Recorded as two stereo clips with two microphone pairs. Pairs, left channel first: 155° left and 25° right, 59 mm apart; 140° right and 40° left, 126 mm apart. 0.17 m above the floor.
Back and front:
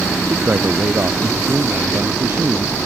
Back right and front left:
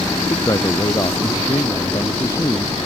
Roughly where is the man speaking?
Right.